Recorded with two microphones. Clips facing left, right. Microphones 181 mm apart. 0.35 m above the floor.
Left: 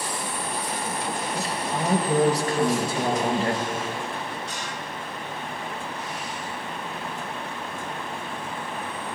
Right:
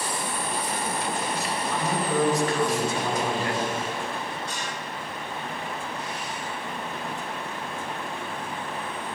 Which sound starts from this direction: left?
A woman speaking, at 1.4 s.